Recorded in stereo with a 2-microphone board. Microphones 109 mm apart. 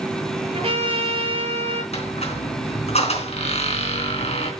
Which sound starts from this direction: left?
A squeak, at 1.9 s.